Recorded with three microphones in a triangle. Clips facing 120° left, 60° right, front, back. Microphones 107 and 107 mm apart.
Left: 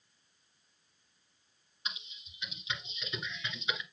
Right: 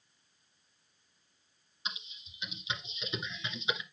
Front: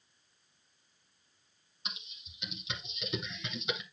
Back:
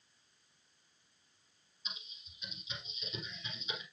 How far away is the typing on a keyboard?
About 1.8 m.